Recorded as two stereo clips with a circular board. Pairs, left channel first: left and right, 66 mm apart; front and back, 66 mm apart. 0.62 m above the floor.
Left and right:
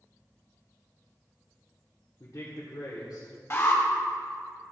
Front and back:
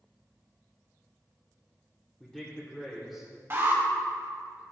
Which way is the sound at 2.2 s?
80° left.